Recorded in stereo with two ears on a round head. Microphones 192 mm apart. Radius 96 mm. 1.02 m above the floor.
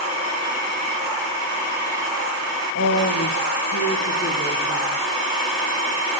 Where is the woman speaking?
65° left (ahead or behind), 0.9 m; by 4.9 s 50° left (ahead or behind), 2 m.